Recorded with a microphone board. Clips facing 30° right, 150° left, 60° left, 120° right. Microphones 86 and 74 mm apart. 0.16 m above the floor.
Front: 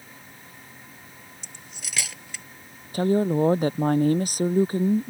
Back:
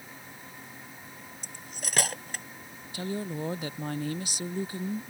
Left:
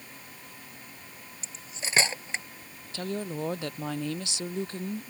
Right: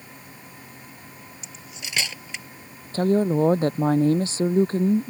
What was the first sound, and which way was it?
Cutlery clinking, 115° left.